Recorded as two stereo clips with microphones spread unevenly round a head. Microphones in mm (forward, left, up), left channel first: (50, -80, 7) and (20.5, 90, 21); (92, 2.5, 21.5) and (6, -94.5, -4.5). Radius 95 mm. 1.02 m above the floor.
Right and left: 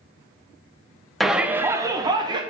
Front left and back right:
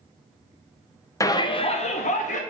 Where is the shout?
5° right, 0.6 m; by 2.4 s 35° left, 1.0 m.